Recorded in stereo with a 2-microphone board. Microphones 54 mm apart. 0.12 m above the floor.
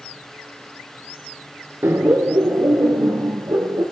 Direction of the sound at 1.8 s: 45° right (ahead or behind).